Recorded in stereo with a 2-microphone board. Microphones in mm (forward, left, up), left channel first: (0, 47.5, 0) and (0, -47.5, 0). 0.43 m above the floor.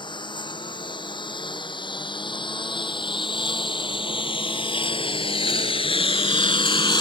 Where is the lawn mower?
55° left (ahead or behind).